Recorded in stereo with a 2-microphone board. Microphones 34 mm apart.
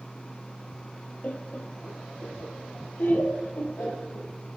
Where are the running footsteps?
No running footsteps in this recording.